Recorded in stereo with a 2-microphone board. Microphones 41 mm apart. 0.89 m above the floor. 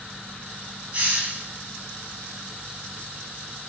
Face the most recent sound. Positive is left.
turn(degrees=-35)  # may be behind; listen again after turning